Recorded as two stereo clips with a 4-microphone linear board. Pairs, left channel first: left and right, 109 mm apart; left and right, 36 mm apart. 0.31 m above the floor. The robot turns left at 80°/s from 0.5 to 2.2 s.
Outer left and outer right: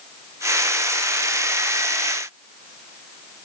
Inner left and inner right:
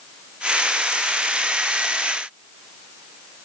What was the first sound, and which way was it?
Only background noise.